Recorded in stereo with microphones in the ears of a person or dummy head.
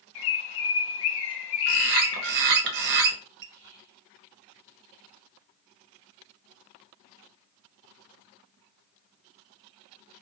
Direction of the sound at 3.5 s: 50° right (ahead or behind).